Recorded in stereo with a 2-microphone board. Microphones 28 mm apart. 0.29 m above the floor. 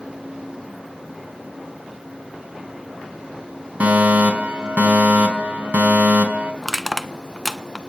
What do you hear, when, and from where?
3.8 s a fire alarm: 60° right (ahead or behind), 4 m
6.6 s crushing: 5° left (ahead or behind), 1.1 m